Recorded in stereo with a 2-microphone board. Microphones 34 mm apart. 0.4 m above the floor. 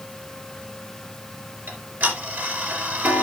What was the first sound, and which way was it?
Ticking, 70° right (ahead or behind).